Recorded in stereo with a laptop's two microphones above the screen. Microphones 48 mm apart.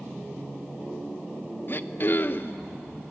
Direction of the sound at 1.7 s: 45° left (ahead or behind).